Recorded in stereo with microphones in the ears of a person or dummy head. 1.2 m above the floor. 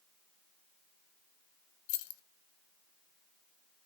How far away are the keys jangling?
About 0.7 m.